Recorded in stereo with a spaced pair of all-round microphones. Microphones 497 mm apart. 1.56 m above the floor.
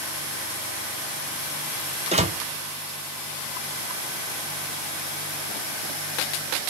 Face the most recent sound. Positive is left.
turn(degrees=-15)  # may be behind; listen again after turning